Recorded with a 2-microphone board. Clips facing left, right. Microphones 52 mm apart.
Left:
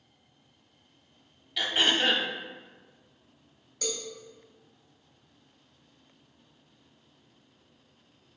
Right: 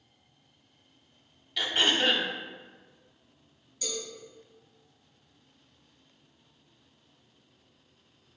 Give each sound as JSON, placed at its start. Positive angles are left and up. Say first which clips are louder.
{"t": 1.6, "sound": "throat clearing", "louder": "even", "side_deg": 5, "distance_m": 0.5}
{"t": 3.8, "sound": "a cowbell", "louder": "left 2 dB", "side_deg": 60, "distance_m": 1.6}